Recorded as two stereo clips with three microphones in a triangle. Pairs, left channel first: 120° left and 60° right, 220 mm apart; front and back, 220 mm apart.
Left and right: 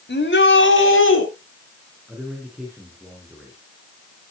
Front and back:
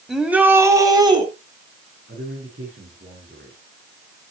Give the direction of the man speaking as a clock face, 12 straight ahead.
5 o'clock.